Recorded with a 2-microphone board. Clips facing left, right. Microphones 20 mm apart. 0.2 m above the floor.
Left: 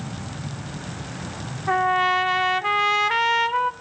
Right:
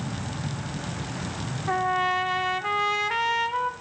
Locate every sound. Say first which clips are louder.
1.7 s a trumpet: left 5 dB; 20° left (ahead or behind), 0.6 m